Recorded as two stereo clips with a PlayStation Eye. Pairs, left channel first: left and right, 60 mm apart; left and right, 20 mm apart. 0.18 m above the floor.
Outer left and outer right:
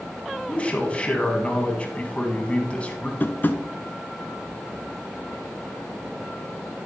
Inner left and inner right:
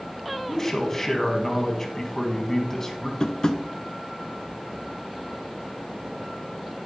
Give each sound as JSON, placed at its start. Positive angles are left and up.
{"t": 0.5, "sound": "a man speaking", "side_deg": 20, "distance_m": 1.3}
{"t": 3.2, "sound": "tapping", "side_deg": 30, "distance_m": 0.7}